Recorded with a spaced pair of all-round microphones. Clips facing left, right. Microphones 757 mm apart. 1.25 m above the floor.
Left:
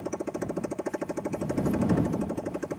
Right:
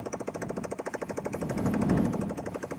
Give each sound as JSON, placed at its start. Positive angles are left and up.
{"t": 0.0, "sound": "a motorcycle", "side_deg": 60}